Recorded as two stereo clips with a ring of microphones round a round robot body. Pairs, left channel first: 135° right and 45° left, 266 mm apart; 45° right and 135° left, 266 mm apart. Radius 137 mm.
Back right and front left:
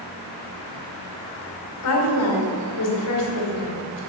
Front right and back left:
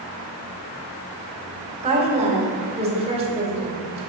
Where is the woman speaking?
160° right, 2.5 m.